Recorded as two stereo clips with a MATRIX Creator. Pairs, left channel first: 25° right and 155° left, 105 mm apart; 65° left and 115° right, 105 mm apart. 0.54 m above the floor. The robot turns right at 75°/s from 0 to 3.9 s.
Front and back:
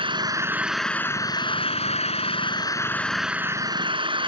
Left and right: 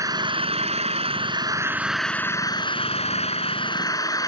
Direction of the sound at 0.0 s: 170° right.